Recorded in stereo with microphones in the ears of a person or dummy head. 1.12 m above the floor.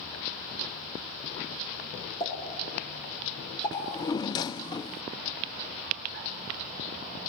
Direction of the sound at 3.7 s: 20° left (ahead or behind).